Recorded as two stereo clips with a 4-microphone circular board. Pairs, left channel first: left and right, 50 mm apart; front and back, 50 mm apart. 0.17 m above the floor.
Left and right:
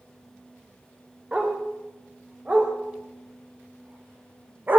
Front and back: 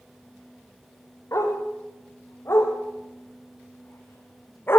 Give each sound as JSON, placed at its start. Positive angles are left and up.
{"t": 1.3, "sound": "a dog barking", "azimuth_deg": -25, "distance_m": 8.5}